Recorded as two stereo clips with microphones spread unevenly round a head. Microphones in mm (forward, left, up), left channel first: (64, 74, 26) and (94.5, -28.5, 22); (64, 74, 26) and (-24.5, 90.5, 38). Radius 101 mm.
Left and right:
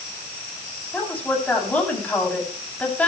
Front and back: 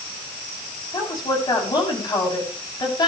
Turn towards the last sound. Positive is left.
turn(degrees=30)